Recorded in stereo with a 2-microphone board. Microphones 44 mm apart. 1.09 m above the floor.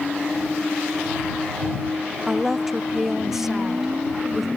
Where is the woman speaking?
10° right (ahead or behind).